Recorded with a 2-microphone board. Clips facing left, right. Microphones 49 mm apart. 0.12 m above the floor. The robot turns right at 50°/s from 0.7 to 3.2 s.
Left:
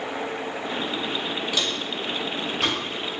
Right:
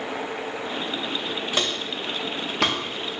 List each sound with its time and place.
1.5 s footsteps: 40° right (ahead or behind), 1.9 m; by 2.8 s 85° right, 2.5 m